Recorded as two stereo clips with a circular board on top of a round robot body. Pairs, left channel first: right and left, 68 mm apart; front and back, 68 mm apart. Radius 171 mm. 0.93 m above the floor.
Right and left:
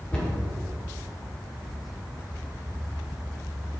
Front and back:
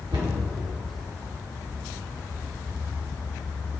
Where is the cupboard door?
160° right, 1.1 m.